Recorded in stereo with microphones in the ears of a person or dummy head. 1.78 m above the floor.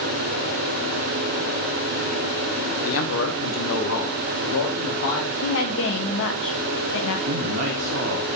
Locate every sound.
2.9 s a man speaking: 80° left, 1.4 m; by 5.3 s 75° left (ahead or behind), 2.5 m
5.4 s a woman speaking: 75° left (ahead or behind), 1.7 m
7.3 s a man speaking: 55° right (ahead or behind), 1.0 m